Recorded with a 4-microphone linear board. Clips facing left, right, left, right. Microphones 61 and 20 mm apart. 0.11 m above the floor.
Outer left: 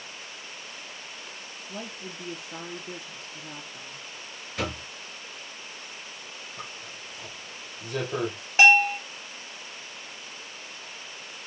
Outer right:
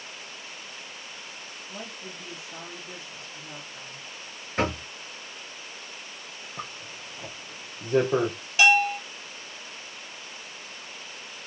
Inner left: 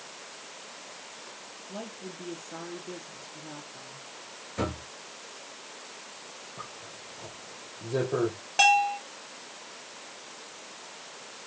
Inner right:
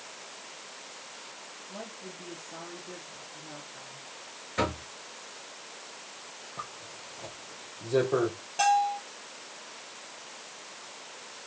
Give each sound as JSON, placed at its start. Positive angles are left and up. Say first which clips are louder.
{"t": 1.7, "sound": "a woman speaking", "louder": "outer left 2 dB, inner left 3 dB", "side_deg": 35, "distance_m": 3.5}
{"t": 4.6, "sound": "knocking", "louder": "outer right 5 dB, inner right 3 dB", "side_deg": -35, "distance_m": 1.8}
{"t": 6.6, "sound": "a zipper", "louder": "outer right 4 dB, inner right 3 dB", "side_deg": -30, "distance_m": 2.5}
{"t": 8.6, "sound": "a bell", "louder": "outer left 2 dB, inner left 3 dB", "side_deg": 35, "distance_m": 2.5}